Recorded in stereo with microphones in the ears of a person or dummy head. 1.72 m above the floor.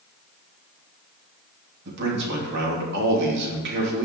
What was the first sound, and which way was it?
A man speaking, 65° right (ahead or behind).